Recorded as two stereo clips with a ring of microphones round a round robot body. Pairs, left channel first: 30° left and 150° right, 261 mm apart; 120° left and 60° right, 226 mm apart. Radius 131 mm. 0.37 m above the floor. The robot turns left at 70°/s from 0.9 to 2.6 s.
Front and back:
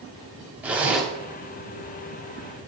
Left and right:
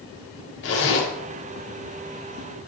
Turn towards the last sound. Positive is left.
turn(degrees=5)